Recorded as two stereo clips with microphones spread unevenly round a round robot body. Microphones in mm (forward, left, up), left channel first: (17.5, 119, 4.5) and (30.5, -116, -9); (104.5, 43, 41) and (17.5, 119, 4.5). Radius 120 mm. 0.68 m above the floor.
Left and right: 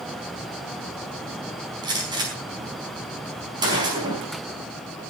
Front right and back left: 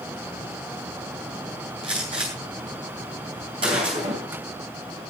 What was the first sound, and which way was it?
A gunshot, 160° right.